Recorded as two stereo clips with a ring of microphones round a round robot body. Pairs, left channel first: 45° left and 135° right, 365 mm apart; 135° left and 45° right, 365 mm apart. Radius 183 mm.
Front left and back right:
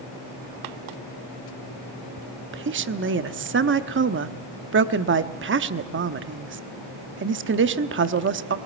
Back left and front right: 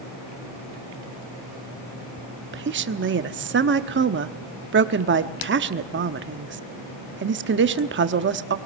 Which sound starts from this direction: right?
A woman speaking, at 2.5 s.